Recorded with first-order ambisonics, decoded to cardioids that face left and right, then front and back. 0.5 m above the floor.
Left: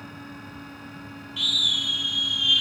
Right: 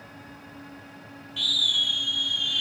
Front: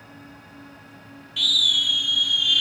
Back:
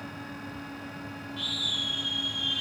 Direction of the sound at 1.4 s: Straight ahead.